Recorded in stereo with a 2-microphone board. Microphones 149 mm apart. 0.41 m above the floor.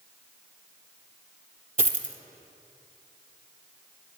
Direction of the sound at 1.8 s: 65° right (ahead or behind).